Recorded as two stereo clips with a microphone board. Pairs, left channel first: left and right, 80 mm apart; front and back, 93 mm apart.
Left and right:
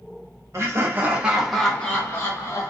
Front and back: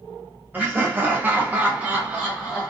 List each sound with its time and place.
0.5 s laughter: 120° right, 0.9 m; by 2.7 s 100° left, 1.0 m